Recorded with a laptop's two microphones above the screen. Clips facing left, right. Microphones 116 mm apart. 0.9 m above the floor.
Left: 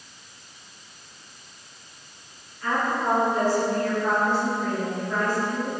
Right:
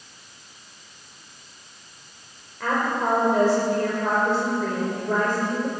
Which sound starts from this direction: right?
A woman speaking, at 2.6 s.